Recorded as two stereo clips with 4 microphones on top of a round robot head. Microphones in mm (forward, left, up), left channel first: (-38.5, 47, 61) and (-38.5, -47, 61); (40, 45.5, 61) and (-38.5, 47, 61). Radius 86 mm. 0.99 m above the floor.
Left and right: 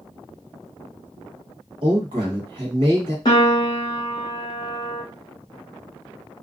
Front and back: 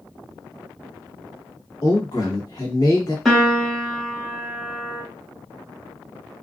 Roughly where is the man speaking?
Ahead right.